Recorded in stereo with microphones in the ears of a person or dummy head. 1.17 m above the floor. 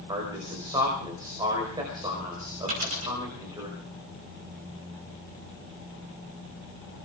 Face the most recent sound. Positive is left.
turn(degrees=-40)  # may be behind; listen again after turning